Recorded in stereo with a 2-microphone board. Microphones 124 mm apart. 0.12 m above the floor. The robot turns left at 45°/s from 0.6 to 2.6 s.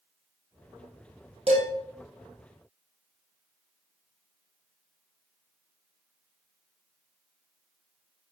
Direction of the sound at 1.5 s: 55° right (ahead or behind).